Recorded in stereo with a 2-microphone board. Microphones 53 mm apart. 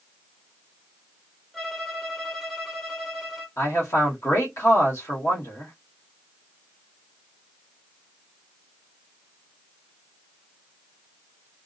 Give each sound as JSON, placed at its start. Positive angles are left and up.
{"t": 1.5, "sound": "a violin", "side_deg": 5, "distance_m": 1.0}
{"t": 3.6, "sound": "a man speaking", "side_deg": 75, "distance_m": 1.4}